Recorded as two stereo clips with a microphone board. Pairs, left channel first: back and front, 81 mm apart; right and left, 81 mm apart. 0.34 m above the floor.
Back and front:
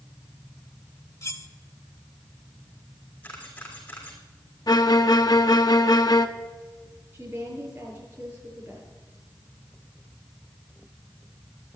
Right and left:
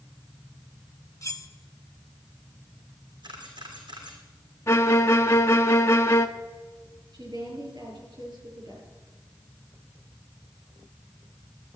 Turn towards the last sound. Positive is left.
turn(degrees=60)